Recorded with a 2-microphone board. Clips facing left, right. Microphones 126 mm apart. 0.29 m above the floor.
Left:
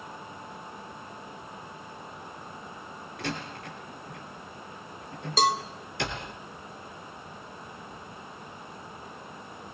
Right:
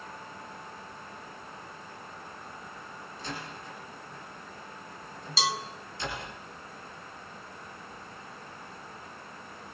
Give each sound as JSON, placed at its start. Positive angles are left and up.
{"t": 3.2, "sound": "a door slam", "side_deg": 70, "distance_m": 3.5}
{"t": 5.4, "sound": "a cowbell", "side_deg": 45, "distance_m": 1.3}